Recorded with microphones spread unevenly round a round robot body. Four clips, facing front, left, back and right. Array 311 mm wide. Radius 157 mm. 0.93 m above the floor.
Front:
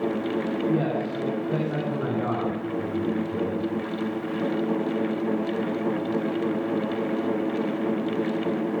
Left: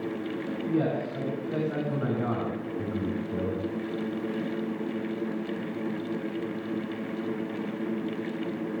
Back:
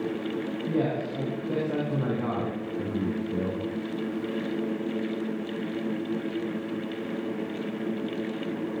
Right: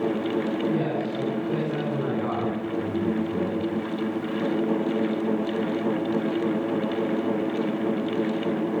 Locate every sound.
0.7 s a man speaking: 160° left, 8 m